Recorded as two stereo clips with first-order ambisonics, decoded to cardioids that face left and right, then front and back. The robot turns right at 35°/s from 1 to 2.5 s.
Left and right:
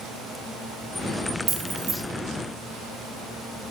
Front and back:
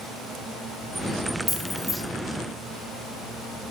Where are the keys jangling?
85° right, 0.5 m; by 1.9 s 65° right, 0.5 m.